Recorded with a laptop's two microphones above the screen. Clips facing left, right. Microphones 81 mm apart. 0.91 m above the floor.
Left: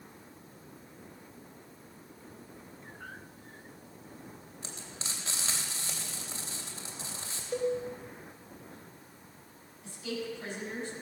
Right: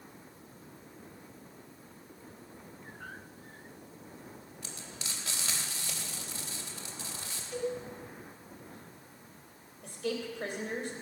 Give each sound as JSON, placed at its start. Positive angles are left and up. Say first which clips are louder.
{"t": 4.6, "sound": "frying", "louder": "left 2 dB", "side_deg": 30, "distance_m": 3.5}
{"t": 7.5, "sound": "a cowbell", "louder": "left 4 dB", "side_deg": 50, "distance_m": 1.3}
{"t": 9.8, "sound": "a woman speaking", "louder": "right 2 dB", "side_deg": -75, "distance_m": 3.5}